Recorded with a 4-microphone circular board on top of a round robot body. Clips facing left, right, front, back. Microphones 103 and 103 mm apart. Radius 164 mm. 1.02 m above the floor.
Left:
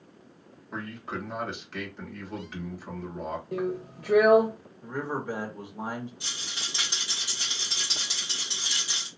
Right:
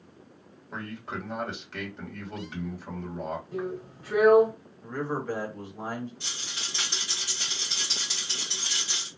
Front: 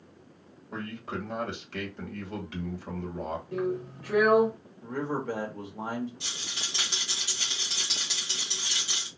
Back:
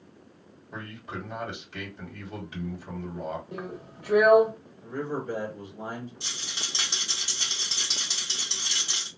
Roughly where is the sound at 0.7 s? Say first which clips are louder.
Left 1 dB, front 3 dB; ahead.